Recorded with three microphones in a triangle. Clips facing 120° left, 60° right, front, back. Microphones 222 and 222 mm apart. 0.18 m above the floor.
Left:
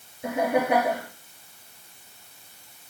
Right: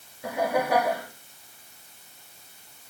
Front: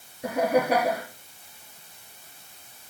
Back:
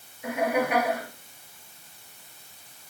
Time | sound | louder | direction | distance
0.2 | laughter | left 3 dB, front 3 dB | 50° left | 3 m